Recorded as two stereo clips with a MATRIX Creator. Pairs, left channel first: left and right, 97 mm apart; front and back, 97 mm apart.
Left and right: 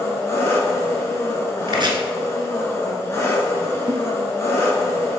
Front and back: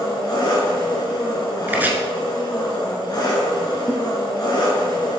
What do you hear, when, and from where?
0.0 s an engine running: 35° left, 2.0 m
1.7 s chopping: 115° right, 1.0 m
3.9 s a giggle: 135° right, 0.7 m